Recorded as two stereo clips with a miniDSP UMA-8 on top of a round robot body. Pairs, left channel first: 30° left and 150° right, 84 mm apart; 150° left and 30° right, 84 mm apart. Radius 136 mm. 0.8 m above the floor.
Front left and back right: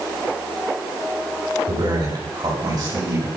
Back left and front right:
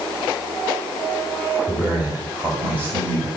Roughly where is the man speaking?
Right.